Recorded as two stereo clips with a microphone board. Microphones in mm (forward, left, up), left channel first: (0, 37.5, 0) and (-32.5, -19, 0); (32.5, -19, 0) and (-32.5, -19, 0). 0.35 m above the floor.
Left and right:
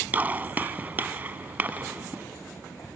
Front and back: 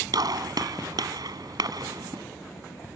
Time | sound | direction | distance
0.1 | a gunshot | 175° left | ?